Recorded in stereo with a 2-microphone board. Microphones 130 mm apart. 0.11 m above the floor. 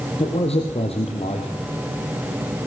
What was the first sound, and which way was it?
A man speaking, 50° left (ahead or behind).